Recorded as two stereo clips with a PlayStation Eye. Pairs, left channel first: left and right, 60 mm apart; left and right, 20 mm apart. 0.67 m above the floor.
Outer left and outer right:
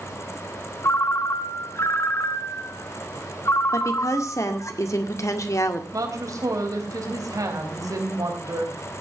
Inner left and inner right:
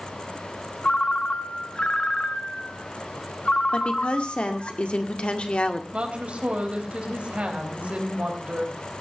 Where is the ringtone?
50° left (ahead or behind), 1.2 m.